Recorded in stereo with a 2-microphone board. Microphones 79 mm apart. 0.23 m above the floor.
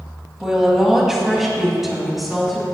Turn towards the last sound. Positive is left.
turn(degrees=0)  # may be behind; listen again after turning